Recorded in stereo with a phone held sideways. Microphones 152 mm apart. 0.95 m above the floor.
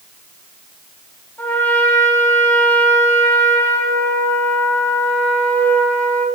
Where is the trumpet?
15° left (ahead or behind), 3 m.